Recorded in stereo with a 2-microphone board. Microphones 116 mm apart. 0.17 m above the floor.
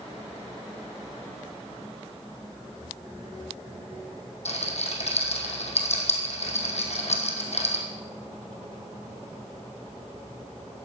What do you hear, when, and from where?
4.5 s a rattle: 65° left (ahead or behind), 3 m